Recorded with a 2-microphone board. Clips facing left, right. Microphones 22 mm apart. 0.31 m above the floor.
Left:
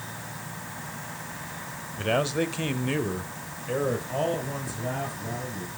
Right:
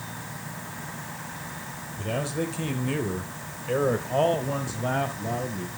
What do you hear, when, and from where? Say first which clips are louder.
2.0 s a man speaking: left 4 dB; 35° left (ahead or behind), 1.1 m; by 5.7 s 40° right (ahead or behind), 1.8 m